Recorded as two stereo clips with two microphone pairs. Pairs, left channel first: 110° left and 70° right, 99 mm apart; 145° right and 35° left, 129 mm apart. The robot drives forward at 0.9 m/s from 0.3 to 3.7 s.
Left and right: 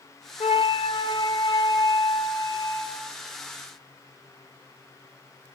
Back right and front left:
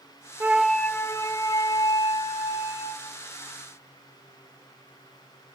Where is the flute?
110° left, 0.6 m; by 3.1 s 170° left, 2.5 m.